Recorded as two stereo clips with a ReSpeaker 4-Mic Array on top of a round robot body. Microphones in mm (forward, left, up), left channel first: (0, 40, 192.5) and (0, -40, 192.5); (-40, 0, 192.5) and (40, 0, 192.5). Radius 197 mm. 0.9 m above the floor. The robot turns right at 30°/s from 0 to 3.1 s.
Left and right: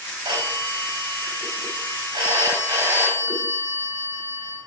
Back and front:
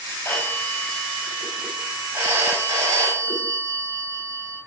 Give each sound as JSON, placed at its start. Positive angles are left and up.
{"t": 0.2, "sound": "a phone ringing", "azimuth_deg": -110, "distance_m": 5.0}